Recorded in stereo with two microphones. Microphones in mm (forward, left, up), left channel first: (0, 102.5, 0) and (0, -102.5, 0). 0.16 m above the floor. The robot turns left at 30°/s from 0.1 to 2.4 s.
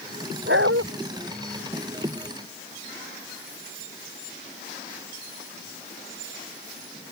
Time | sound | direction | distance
0.5 | a dog barking | 60° right (ahead or behind) | ?